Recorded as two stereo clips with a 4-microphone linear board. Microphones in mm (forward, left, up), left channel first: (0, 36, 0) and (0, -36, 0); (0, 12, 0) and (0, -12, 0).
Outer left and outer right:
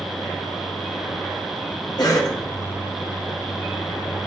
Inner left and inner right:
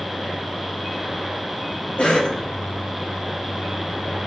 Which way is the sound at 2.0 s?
65° left (ahead or behind).